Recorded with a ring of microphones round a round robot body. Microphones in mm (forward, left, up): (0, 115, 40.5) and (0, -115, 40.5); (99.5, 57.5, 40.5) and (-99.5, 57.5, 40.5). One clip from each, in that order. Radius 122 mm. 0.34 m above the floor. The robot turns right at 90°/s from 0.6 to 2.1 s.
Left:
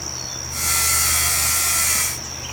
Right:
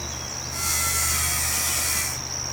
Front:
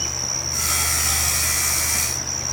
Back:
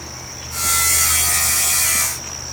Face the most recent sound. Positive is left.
No sound to turn to.